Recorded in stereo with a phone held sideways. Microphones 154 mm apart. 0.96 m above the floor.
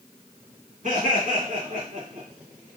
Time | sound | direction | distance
0.8 | laughter | 55° right (ahead or behind) | 1.7 m